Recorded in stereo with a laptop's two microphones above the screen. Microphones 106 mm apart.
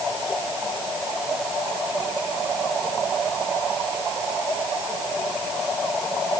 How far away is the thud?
No thud in this recording.